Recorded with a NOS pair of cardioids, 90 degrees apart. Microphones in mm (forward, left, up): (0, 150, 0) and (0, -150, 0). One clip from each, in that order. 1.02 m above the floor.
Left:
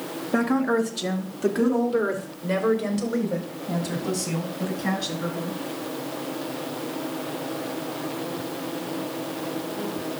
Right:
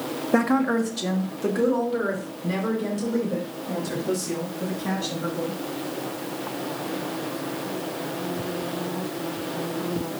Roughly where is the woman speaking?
Ahead.